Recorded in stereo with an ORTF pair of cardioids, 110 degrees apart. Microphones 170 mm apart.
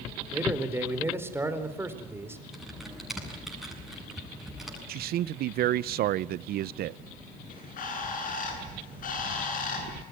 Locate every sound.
0.3 s a man speaking: 15° right, 4 m
2.5 s typing on a keyboard: straight ahead, 8 m
4.9 s a man speaking: 65° right, 0.6 m
7.5 s a bird: 55° left, 9 m